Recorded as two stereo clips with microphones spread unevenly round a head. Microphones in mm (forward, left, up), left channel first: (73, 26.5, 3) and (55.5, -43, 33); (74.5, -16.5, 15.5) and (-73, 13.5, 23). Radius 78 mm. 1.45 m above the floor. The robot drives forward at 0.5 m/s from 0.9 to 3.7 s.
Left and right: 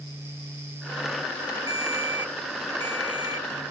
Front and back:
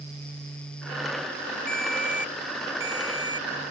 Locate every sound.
1.7 s a ringtone: 100° right; by 3.5 s 135° right